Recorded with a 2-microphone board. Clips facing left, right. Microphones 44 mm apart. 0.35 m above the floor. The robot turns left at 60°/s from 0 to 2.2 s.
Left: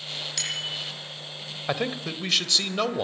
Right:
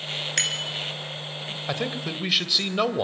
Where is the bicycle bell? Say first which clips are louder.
Right 4 dB; 50° right (ahead or behind), 3.5 m; by 0.8 s 75° right (ahead or behind), 3.5 m.